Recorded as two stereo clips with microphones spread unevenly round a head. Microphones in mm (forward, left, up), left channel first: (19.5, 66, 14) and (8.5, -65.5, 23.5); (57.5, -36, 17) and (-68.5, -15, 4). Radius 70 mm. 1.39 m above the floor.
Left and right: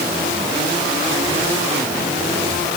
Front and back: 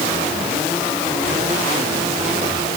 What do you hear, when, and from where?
Only background noise.